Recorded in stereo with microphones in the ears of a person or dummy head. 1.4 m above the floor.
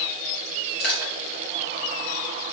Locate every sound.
0.8 s crushing: 55° left (ahead or behind), 2 m